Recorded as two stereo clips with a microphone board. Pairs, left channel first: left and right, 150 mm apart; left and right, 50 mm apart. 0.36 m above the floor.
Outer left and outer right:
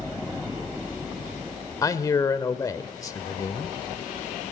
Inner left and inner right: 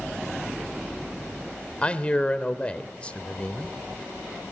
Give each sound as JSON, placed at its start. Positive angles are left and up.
{"t": 1.8, "sound": "a man speaking", "side_deg": 25, "distance_m": 1.1}